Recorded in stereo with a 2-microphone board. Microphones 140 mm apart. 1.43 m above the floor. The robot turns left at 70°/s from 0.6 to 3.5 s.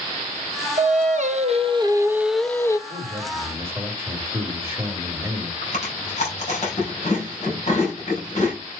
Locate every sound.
0.8 s singing: 70° right, 0.9 m; by 2.8 s 150° left, 0.9 m
2.9 s a man speaking: 120° right, 2.5 m; by 5.5 s 165° right, 2.5 m
5.6 s chewing: 50° left (ahead or behind), 5.5 m